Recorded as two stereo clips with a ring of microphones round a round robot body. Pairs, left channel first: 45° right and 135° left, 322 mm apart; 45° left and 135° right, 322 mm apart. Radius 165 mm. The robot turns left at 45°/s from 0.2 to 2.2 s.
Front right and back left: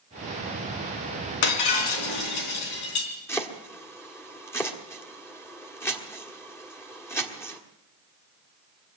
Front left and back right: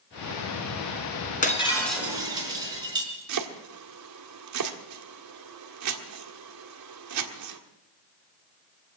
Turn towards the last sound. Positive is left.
turn(degrees=-125)